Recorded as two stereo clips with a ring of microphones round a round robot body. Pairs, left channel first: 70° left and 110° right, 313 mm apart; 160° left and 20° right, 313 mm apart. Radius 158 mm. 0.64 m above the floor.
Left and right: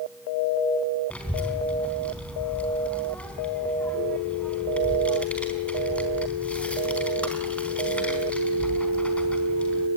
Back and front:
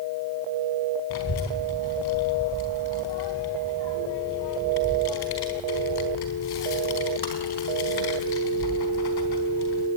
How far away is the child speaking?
About 4 m.